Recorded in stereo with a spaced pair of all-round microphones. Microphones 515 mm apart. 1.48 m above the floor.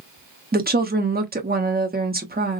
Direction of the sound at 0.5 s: 20° right (ahead or behind).